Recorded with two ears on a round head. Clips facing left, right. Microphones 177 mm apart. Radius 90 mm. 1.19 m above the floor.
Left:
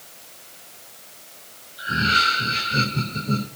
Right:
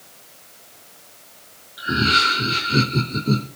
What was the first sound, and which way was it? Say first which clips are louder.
Laughter: right 4 dB; 85° right.